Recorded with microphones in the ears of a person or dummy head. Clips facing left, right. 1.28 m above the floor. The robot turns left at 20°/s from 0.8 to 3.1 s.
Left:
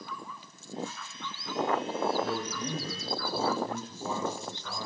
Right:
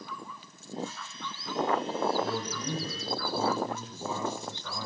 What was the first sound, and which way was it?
A man speaking, 90° right.